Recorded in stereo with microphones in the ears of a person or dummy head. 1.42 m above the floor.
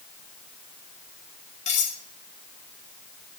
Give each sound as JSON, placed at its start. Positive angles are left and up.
{"t": 1.7, "sound": "cutlery clinking", "side_deg": 40, "distance_m": 2.5}